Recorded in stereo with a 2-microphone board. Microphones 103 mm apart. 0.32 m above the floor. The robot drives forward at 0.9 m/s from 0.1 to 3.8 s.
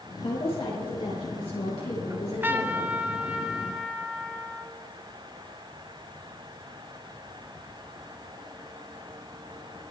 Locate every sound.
0.2 s a woman speaking: 70° left (ahead or behind), 7 m; by 3.0 s 80° left, 6.5 m
2.1 s a trumpet: 25° right (ahead or behind), 0.7 m; by 4.8 s 10° right (ahead or behind), 2 m